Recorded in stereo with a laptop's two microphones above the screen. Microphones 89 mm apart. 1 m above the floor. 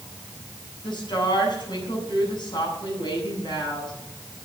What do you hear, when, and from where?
0.8 s a woman speaking: 55° left (ahead or behind), 8.5 m